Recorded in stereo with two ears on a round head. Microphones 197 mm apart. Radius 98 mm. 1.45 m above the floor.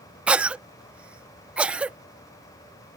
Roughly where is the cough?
Centre.